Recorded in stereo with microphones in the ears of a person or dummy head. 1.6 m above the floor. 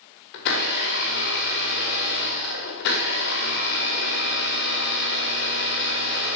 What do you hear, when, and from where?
0.3 s a blender: 60° left (ahead or behind), 2.5 m